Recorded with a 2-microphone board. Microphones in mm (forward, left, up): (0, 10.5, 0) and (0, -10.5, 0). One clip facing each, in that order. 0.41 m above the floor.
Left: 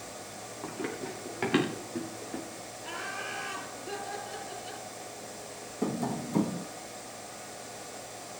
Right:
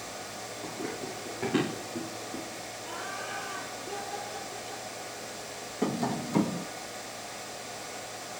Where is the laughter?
55° left (ahead or behind), 7 m.